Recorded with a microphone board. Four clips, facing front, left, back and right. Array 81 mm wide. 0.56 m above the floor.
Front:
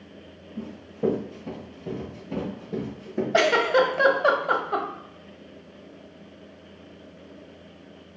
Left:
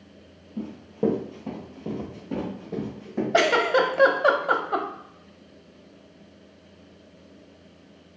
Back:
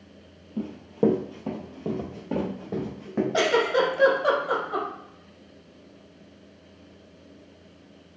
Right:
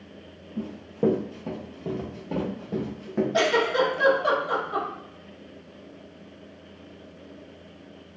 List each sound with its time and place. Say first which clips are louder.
0.6 s running footsteps: even, back 4 dB; straight behind, 0.9 m; by 3.2 s 165° right, 2 m
3.3 s a giggle: left 3 dB, front 3 dB; 50° left, 0.5 m